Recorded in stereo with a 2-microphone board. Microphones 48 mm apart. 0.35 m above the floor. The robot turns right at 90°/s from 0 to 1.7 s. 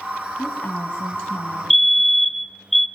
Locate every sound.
0.4 s a woman speaking: 5° left, 3 m; by 2.5 s 125° left, 3 m
1.7 s a fire alarm: centre (ahead or behind), 2.5 m